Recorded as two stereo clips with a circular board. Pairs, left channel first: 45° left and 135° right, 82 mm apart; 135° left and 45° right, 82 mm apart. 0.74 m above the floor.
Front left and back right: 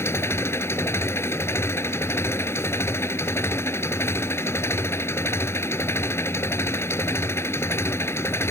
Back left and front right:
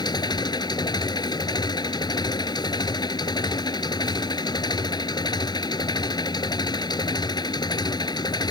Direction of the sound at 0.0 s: 105° left.